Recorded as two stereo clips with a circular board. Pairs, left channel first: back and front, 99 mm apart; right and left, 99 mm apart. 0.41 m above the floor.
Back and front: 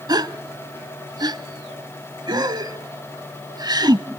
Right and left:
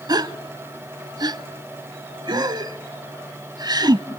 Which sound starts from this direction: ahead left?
A gasp, at 0.1 s.